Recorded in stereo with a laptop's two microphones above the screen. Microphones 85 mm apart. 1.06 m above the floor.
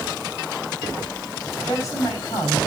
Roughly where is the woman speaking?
Left.